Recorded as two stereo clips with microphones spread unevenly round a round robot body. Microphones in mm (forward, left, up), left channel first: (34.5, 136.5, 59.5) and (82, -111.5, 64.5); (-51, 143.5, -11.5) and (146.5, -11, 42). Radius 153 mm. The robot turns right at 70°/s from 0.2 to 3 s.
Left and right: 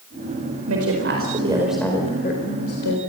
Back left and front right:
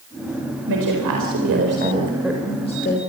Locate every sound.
0.7 s a woman speaking: 65° right, 4.5 m; by 3.0 s 100° left, 4.5 m